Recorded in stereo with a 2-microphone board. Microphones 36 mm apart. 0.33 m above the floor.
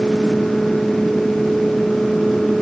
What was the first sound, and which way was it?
Only background noise.